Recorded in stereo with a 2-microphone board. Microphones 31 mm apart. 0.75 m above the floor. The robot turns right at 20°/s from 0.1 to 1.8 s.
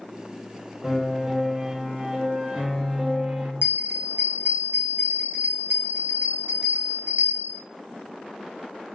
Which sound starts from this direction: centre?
A piano, at 0.8 s.